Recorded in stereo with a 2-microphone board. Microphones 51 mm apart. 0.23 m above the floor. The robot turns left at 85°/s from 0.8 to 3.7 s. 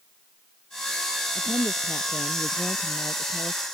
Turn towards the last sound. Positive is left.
turn(degrees=-110)